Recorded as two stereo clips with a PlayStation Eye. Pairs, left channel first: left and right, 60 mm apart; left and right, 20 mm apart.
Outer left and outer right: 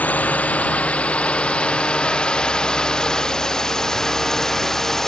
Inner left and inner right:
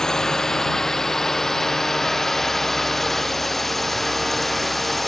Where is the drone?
25° left (ahead or behind); by 5.1 s 5° left (ahead or behind).